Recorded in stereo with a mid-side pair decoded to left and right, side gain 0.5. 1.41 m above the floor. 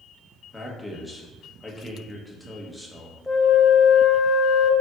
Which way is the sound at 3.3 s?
5° left.